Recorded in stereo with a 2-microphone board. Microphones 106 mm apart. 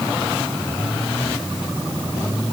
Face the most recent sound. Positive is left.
No sound to turn to.